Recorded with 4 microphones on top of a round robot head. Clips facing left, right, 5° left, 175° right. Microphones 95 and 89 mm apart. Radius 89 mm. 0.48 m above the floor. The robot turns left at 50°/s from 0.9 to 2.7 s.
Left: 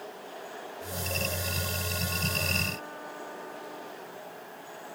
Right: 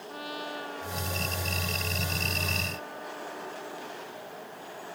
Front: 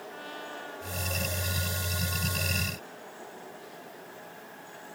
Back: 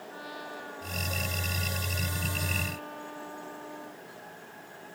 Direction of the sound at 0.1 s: 90° right.